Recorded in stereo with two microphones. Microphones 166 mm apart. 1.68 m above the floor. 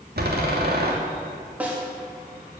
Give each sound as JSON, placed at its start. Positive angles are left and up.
{"t": 0.2, "sound": "a door slam", "side_deg": -75, "distance_m": 2.5}
{"t": 1.6, "sound": "a snare drum", "side_deg": -10, "distance_m": 3.0}